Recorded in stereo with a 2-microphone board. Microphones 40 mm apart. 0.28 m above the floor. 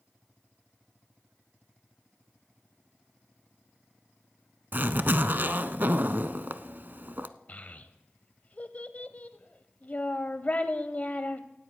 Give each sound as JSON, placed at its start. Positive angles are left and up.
{"t": 4.7, "sound": "a zipper", "side_deg": -55, "distance_m": 0.5}
{"t": 7.5, "sound": "a child speaking", "side_deg": 40, "distance_m": 0.7}